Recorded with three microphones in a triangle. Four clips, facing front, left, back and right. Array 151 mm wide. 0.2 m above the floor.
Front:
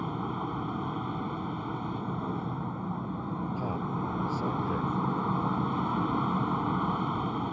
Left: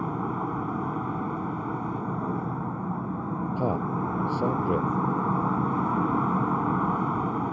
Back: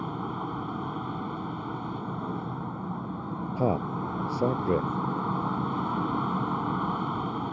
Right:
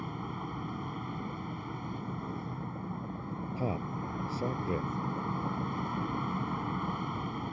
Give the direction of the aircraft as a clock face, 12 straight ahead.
9 o'clock.